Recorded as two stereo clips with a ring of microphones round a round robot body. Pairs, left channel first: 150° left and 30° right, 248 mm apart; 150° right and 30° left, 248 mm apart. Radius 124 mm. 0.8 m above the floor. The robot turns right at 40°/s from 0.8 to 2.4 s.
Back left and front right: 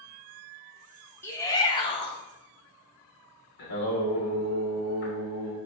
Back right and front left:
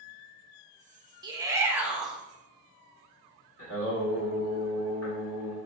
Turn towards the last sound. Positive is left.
turn(degrees=170)